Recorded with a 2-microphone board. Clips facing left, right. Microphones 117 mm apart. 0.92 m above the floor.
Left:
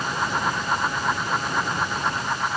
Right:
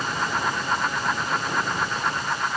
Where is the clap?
No clap in this recording.